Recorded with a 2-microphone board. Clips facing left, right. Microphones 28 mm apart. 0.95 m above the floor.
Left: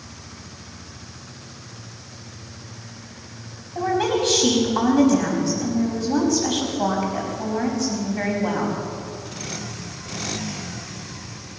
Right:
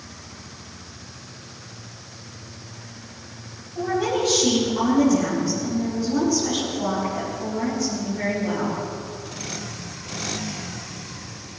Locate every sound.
3.8 s a woman speaking: 80° left, 5.5 m